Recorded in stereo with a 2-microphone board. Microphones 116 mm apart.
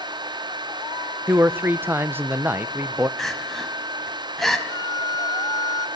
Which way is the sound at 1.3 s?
15° right (ahead or behind).